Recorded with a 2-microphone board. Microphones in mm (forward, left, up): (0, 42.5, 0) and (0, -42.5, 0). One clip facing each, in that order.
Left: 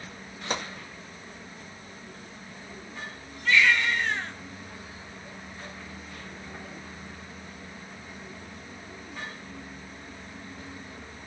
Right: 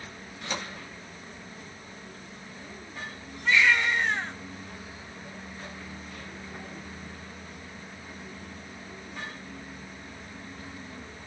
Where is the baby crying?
15° right (ahead or behind), 1.6 m.